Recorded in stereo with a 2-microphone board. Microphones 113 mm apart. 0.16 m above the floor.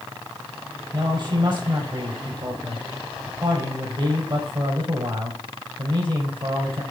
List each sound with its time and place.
0.9 s a man speaking: 50° right (ahead or behind), 4.5 m